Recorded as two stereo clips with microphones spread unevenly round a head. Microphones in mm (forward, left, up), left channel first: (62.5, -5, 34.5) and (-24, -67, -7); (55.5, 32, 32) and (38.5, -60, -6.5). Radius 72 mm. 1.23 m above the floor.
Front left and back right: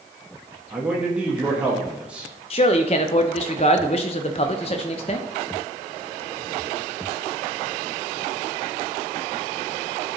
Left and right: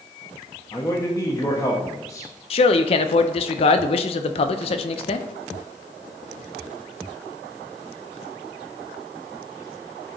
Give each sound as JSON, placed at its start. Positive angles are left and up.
{"t": 0.7, "sound": "a man speaking", "azimuth_deg": 155, "distance_m": 0.9}
{"t": 2.5, "sound": "a man speaking", "azimuth_deg": 80, "distance_m": 0.5}